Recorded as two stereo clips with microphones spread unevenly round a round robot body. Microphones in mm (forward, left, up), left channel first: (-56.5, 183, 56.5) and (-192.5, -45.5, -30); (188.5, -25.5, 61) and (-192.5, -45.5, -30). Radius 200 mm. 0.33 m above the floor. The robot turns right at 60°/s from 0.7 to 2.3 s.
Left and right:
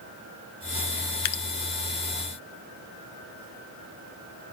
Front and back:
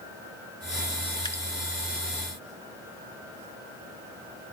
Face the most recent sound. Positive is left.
turn(degrees=150)